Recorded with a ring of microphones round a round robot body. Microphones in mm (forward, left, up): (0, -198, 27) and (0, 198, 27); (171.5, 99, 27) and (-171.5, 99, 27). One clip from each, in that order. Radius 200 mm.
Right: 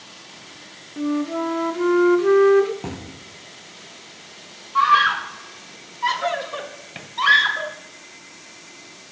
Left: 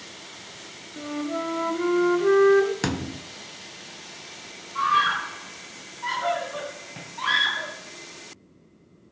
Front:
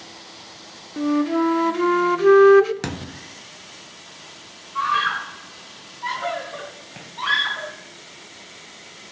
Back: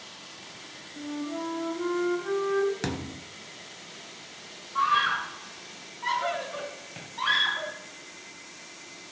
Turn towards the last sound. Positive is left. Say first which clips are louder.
# right 6 dB, front 3 dB
turn(degrees=-95)